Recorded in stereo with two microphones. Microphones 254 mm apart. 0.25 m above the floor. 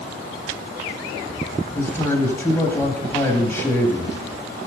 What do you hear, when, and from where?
1.8 s a man speaking: 10° left (ahead or behind), 1.3 m